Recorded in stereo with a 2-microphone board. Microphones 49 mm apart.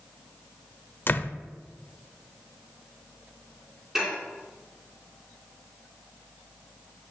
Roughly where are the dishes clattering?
Centre.